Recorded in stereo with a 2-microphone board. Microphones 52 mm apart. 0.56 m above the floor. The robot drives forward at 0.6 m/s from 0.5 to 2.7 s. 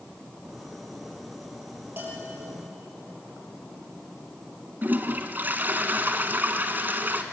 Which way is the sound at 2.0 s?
35° right (ahead or behind).